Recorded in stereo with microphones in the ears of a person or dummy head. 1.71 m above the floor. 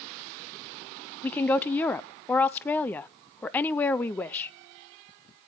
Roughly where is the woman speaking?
Centre.